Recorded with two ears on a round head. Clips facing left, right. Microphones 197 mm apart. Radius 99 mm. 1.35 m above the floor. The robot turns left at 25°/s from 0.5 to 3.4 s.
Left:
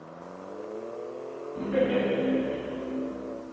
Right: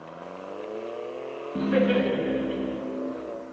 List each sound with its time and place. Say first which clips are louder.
1.6 s laughter: right 3 dB; 65° right, 0.8 m; by 2.8 s 100° right, 0.8 m